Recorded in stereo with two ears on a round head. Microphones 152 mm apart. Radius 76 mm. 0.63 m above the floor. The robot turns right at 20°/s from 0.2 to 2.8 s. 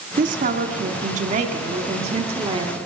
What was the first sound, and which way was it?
A woman speaking, 90° right.